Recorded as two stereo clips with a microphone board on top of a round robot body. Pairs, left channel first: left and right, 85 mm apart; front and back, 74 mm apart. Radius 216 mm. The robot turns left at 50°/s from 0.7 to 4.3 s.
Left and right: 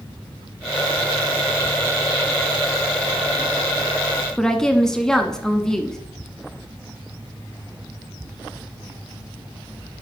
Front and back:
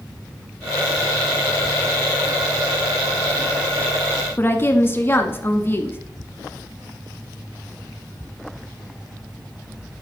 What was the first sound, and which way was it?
A woman speaking, 15° left.